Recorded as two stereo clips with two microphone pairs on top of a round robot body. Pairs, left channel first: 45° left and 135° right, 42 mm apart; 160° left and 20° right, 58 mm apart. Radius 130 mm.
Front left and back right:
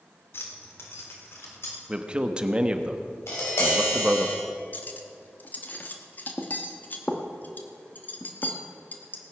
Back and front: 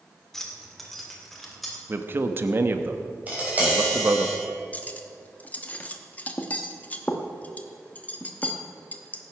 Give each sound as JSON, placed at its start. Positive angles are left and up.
{"t": 0.3, "sound": "keys jangling", "azimuth_deg": 75, "distance_m": 1.8}
{"t": 1.9, "sound": "a man speaking", "azimuth_deg": -70, "distance_m": 1.1}
{"t": 3.3, "sound": "tapping", "azimuth_deg": 40, "distance_m": 5.5}
{"t": 4.7, "sound": "cutlery clinking", "azimuth_deg": 90, "distance_m": 1.1}